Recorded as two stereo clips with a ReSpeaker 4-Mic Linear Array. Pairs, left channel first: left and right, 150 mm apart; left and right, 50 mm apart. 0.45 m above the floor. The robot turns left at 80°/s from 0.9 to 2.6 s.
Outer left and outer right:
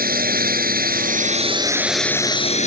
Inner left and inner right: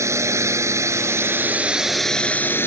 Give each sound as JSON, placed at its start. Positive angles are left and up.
{"t": 0.0, "sound": "a drone", "azimuth_deg": -95}